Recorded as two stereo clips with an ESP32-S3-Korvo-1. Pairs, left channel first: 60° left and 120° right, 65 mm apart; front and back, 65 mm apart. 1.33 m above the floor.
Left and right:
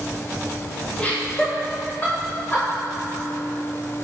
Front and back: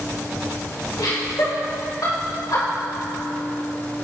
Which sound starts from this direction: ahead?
Laughter, at 1.0 s.